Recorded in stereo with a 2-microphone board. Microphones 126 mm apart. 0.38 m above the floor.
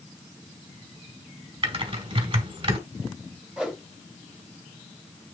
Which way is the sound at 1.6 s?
50° right (ahead or behind).